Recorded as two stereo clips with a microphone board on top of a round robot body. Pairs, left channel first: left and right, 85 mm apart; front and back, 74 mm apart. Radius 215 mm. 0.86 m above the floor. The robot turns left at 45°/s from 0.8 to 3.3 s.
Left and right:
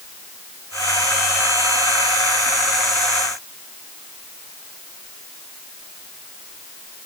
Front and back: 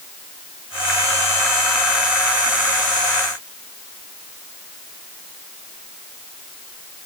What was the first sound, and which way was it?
Only background noise.